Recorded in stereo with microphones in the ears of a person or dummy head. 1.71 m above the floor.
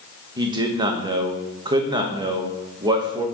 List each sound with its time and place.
0.4 s a man speaking: 20° right (ahead or behind), 1.1 m